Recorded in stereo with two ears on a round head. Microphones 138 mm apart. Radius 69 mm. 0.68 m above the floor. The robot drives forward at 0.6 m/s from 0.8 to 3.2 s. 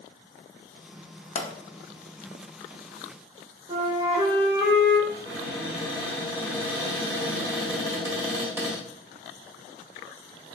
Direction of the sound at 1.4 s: 50° left (ahead or behind).